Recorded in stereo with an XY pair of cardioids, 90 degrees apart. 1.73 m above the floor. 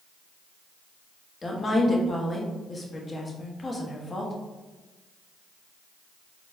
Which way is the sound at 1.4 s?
30° left.